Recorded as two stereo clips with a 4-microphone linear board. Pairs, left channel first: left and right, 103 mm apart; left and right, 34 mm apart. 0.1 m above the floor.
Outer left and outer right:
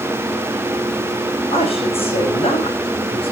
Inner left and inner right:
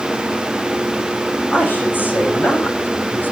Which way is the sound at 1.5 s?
65° left (ahead or behind).